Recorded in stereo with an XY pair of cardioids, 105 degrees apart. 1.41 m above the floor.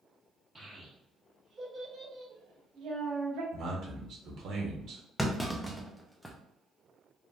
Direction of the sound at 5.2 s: Straight ahead.